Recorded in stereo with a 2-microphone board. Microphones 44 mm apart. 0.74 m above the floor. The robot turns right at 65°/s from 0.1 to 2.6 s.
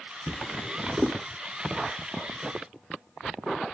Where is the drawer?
20° left (ahead or behind), 1.1 m; by 1.2 s 40° right (ahead or behind), 1.1 m.